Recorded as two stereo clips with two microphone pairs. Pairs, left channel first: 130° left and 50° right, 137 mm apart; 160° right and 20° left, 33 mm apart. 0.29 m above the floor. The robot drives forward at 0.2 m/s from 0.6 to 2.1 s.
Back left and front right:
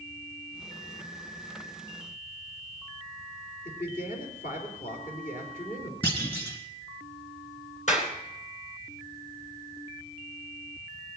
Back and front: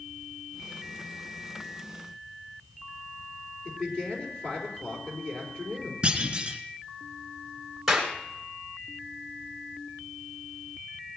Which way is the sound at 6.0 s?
80° left.